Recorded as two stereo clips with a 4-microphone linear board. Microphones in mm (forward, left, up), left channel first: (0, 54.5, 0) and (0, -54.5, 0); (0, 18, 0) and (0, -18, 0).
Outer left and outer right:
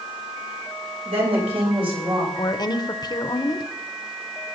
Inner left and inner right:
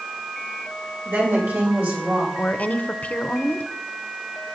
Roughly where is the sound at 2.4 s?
Left.